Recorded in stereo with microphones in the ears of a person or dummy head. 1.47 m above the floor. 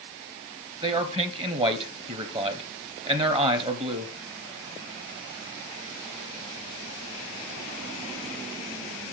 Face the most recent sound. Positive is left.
turn(degrees=-25)  # may be behind; listen again after turning